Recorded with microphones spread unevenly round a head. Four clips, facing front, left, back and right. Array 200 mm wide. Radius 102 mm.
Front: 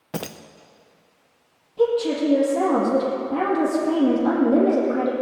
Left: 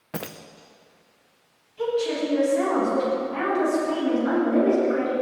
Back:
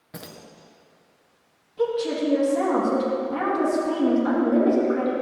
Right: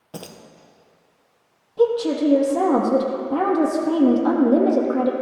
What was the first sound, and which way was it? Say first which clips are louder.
Keys jangling: left 3 dB, front 9 dB; 20° left.